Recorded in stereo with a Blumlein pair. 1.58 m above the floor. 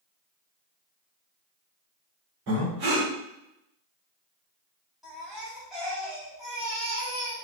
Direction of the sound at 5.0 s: 5° right.